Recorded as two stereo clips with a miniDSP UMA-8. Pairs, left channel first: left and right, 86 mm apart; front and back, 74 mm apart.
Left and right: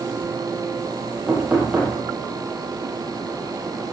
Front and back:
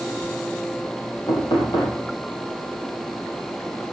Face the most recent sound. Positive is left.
turn(degrees=-10)